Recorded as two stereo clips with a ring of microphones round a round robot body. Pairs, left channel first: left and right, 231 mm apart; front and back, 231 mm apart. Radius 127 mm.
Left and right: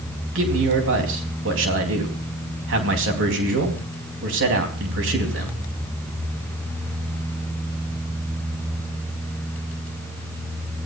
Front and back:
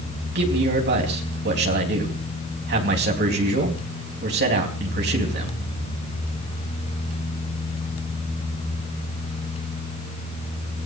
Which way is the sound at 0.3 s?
130° right.